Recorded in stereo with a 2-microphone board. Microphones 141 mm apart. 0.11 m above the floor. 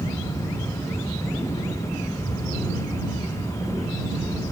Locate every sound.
Only background noise.